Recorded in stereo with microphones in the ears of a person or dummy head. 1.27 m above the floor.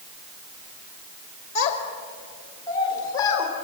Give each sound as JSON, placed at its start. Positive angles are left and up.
{"t": 1.6, "sound": "a child speaking", "side_deg": 35, "distance_m": 2.5}